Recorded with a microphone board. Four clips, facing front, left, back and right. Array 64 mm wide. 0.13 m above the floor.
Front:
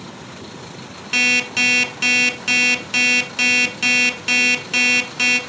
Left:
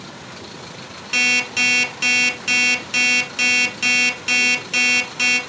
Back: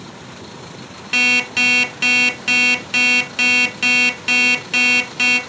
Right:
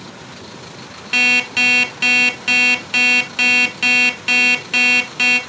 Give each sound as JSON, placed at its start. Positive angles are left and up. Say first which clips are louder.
{"t": 1.1, "sound": "an alarm clock", "louder": "right 3 dB, back 1 dB", "azimuth_deg": -115, "distance_m": 0.6}